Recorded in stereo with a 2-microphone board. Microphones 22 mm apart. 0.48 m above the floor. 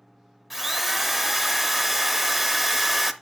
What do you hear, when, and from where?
0.5 s a drill: 5° right (ahead or behind), 0.6 m